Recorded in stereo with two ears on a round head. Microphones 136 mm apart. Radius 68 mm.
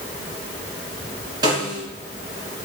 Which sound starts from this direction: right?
A snare drum, at 1.4 s.